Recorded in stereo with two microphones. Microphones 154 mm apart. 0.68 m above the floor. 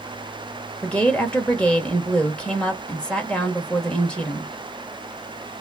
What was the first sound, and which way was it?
A woman speaking, 5° left (ahead or behind).